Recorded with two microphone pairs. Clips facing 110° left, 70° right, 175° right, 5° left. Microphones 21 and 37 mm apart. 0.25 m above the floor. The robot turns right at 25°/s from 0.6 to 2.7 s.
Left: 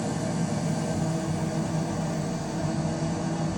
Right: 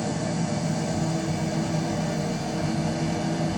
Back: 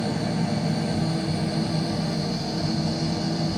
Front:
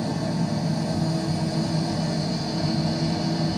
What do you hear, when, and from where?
0.0 s an engine running: 130° right, 1.4 m; by 3.6 s 80° right, 1.4 m